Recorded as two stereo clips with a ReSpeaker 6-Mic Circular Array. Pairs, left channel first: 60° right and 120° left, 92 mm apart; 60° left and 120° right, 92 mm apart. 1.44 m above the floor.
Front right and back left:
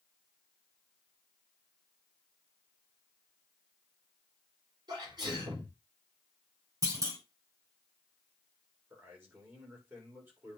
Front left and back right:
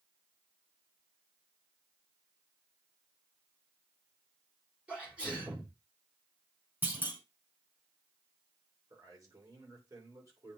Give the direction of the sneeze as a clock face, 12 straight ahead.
7 o'clock.